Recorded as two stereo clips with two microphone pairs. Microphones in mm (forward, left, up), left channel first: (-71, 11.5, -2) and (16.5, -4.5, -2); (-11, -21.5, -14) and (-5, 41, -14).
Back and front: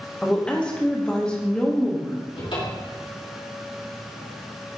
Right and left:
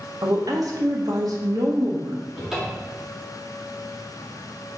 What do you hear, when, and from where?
0.2 s a woman speaking: 90° left, 1.3 m
2.4 s a cupboard door: 170° left, 2 m